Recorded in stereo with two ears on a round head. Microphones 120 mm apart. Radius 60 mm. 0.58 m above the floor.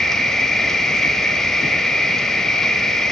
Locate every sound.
0.0 s an insect: 5° left (ahead or behind), 1.3 m